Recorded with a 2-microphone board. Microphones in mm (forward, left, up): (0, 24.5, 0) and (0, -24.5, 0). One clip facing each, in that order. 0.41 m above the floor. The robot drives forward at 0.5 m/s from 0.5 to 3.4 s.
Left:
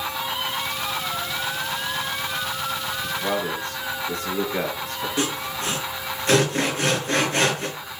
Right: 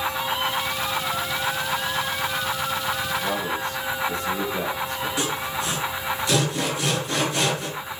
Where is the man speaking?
50° left (ahead or behind), 7 m.